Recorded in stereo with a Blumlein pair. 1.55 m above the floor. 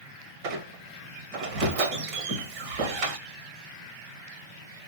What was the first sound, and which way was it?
A squeak, 45° right.